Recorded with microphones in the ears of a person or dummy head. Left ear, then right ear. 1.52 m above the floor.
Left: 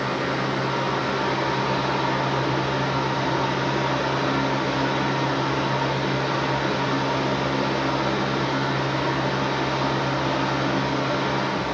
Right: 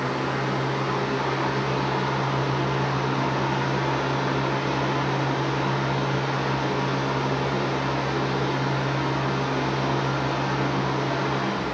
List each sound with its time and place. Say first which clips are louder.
0.0 s a fan: left 2 dB; 20° left (ahead or behind), 2.0 m